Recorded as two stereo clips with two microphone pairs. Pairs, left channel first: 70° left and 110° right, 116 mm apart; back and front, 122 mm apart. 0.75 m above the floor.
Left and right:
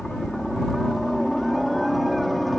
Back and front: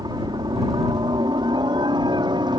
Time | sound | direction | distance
0.0 | a helicopter | 20° right | ?